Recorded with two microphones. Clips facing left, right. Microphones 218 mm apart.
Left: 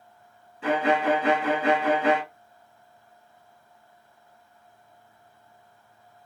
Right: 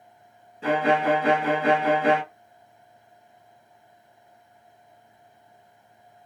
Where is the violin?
35° right (ahead or behind), 2 m.